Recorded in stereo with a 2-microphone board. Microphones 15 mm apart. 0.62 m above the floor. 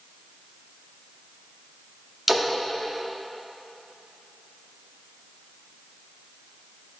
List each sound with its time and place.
2.3 s a splash: 15° right (ahead or behind), 0.8 m